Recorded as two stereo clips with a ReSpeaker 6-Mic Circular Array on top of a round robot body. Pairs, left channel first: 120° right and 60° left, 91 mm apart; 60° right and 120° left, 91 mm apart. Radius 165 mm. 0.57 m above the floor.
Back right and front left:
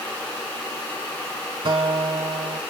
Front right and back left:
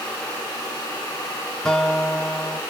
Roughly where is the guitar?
Ahead left.